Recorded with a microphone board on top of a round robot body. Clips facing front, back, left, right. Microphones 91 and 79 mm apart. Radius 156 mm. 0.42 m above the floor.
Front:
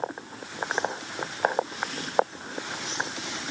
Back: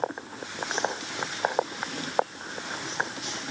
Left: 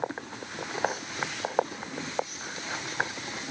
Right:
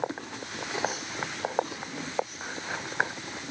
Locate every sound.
Only background noise.